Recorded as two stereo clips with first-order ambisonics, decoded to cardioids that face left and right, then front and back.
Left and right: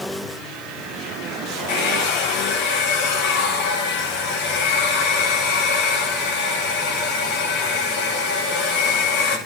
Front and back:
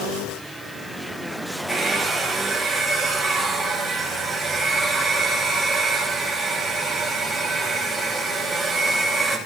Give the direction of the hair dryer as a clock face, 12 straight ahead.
9 o'clock.